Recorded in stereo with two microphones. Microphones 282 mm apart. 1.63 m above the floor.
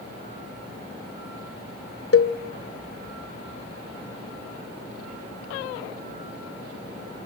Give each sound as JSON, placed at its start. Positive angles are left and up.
{"t": 2.1, "sound": "a cowbell", "side_deg": 55, "distance_m": 1.0}